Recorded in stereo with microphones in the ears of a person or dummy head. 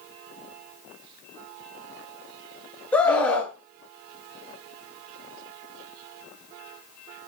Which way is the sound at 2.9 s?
5° left (ahead or behind).